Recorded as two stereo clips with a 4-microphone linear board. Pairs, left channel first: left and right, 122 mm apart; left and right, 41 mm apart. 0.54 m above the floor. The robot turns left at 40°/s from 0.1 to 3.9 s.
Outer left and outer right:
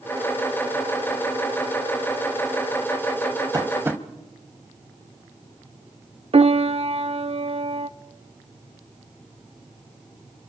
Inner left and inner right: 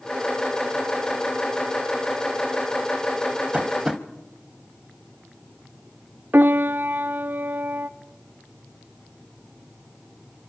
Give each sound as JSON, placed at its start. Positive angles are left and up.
{"t": 3.5, "sound": "tapping", "side_deg": -30, "distance_m": 1.0}
{"t": 6.3, "sound": "a piano", "side_deg": -55, "distance_m": 0.5}